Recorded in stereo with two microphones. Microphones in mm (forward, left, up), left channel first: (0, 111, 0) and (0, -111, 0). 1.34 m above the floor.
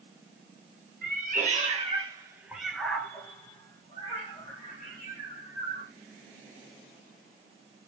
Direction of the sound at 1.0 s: 45° right (ahead or behind).